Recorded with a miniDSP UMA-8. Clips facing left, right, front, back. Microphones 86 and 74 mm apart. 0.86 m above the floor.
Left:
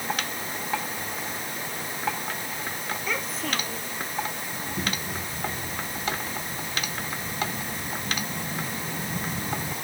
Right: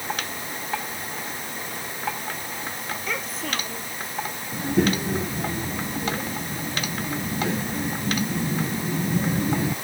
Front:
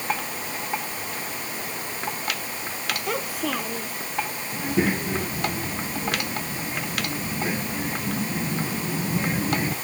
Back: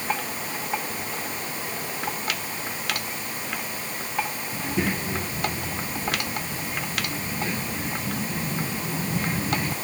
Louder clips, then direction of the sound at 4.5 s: Right 13 dB, front 4 dB; 70° right.